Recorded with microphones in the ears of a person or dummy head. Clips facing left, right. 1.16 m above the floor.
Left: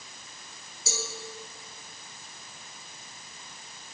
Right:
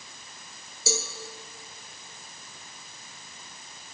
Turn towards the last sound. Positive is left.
turn(degrees=-60)  # may be behind; listen again after turning